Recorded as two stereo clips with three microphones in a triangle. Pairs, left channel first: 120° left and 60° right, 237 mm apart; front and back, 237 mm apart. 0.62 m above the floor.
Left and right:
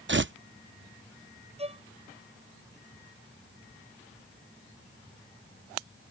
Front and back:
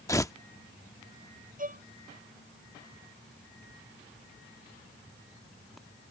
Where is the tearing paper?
70° right.